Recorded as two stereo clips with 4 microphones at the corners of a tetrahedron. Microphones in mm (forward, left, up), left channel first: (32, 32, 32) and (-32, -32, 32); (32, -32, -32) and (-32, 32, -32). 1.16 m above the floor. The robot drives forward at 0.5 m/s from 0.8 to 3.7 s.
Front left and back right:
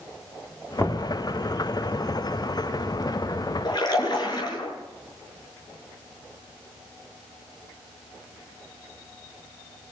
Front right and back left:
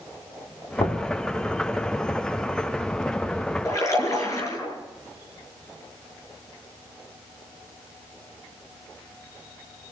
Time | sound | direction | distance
0.8 | knocking | 25° right | 3 m
3.6 | a splash | 10° left | 8 m